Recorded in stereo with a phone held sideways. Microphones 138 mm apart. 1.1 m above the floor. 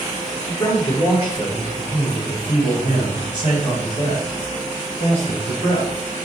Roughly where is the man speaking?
Left.